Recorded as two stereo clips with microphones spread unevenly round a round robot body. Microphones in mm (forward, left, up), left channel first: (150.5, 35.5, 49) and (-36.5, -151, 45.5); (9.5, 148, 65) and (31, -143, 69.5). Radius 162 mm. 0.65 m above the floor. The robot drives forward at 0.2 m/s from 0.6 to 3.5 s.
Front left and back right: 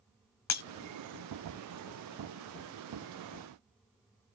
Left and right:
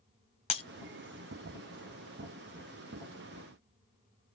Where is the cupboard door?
I don't hear a cupboard door.